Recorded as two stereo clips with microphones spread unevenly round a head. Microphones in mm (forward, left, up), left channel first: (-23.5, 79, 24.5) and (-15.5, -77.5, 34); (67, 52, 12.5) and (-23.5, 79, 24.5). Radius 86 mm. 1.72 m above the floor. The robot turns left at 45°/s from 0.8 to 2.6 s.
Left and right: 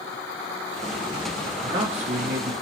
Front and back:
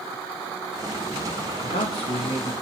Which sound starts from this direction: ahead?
A man speaking, at 1.6 s.